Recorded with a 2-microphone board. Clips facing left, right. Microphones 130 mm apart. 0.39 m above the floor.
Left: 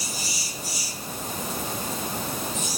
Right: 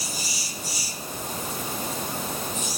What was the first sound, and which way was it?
Only background noise.